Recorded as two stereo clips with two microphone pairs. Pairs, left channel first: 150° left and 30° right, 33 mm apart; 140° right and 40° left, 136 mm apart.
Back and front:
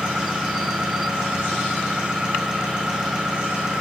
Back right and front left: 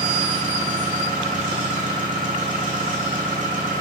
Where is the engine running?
40° left, 3.5 m.